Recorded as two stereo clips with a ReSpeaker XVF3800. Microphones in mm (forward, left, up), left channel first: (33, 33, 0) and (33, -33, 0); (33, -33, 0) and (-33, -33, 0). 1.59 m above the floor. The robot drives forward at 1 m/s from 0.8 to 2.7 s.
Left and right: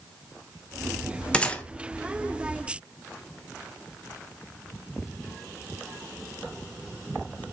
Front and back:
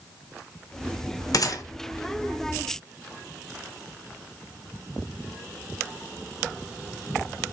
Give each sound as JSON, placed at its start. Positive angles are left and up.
{"t": 1.3, "sound": "a gunshot", "azimuth_deg": 15, "distance_m": 1.4}